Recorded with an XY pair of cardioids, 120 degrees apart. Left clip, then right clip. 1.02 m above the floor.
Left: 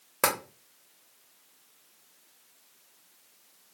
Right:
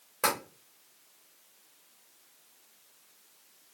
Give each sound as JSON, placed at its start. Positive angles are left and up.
{"t": 0.2, "sound": "tapping", "azimuth_deg": 45, "distance_m": 1.1}